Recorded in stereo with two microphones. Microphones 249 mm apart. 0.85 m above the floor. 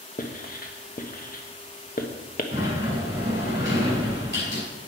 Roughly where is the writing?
Left.